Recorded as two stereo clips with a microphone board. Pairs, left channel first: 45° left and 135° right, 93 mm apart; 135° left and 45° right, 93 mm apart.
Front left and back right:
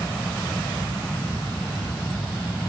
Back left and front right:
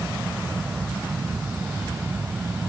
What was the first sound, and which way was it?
Only background noise.